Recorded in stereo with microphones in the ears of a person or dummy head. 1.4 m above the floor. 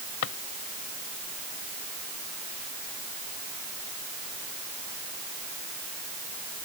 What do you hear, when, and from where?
0.2 s a drawer: 65° left (ahead or behind)